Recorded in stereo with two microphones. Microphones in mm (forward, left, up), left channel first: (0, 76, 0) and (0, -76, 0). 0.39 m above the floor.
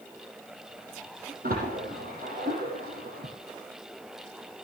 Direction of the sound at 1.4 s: 75° right (ahead or behind).